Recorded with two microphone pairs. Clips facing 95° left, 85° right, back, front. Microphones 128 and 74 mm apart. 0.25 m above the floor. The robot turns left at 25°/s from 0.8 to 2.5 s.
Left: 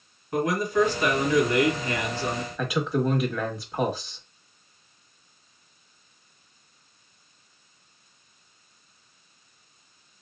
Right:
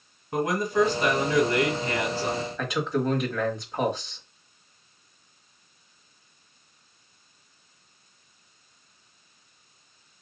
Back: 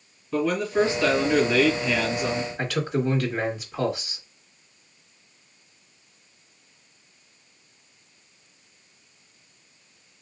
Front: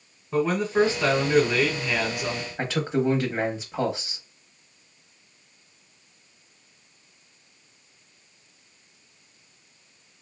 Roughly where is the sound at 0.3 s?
Ahead right.